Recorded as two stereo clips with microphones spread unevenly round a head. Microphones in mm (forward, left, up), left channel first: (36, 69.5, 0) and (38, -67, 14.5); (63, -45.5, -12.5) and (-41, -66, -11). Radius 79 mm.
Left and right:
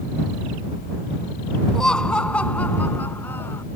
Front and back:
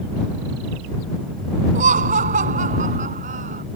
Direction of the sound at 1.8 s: Straight behind.